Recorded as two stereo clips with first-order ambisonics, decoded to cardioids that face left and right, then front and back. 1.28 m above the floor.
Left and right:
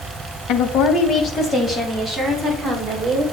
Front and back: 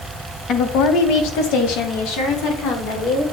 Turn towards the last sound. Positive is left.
turn(degrees=0)